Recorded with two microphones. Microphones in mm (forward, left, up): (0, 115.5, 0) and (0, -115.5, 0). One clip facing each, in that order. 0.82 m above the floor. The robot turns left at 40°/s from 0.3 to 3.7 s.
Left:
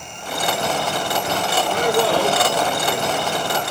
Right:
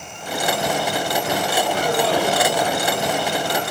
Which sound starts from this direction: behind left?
A man speaking, at 1.7 s.